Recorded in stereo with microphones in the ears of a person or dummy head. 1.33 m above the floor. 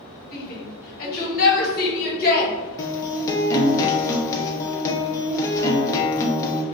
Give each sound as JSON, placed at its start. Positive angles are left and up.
{"t": 0.3, "sound": "a shout", "side_deg": 50, "distance_m": 1.5}
{"t": 2.8, "sound": "a guitar", "side_deg": 20, "distance_m": 0.5}